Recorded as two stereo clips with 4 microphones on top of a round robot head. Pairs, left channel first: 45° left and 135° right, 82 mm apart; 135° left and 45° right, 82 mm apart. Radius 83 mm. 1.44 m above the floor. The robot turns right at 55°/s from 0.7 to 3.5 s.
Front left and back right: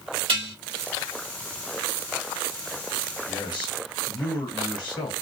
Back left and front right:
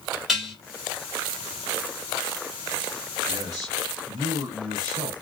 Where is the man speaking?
10° right, 2.5 m; by 5.1 s 5° left, 2.5 m.